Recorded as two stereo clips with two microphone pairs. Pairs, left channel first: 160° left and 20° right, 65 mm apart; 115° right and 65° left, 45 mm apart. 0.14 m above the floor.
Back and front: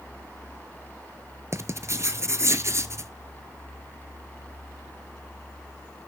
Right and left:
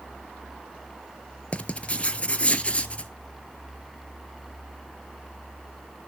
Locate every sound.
1.5 s writing: 50° right, 0.6 m